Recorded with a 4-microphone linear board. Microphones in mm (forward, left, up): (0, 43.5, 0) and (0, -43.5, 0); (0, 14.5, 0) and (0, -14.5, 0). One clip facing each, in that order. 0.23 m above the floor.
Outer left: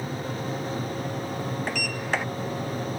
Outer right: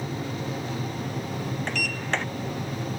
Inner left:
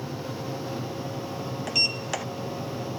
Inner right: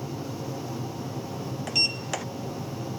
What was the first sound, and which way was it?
A sliding door, 5° left (ahead or behind).